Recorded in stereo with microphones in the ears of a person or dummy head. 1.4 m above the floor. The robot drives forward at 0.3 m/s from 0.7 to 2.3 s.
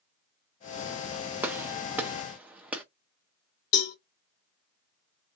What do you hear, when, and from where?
1.4 s a gunshot: 10° right (ahead or behind), 0.8 m; by 2.8 s 5° right (ahead or behind), 1.1 m
3.7 s a cowbell: 75° left (ahead or behind), 0.9 m